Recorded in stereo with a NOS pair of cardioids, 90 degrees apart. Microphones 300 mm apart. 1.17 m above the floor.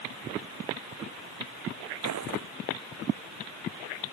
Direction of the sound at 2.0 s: 60° right.